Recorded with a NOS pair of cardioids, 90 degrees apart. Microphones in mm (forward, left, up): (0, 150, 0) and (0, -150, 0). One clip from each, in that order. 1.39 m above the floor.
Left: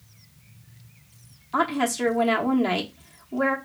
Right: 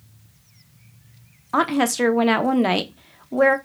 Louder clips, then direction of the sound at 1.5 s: Right 4 dB; 35° right.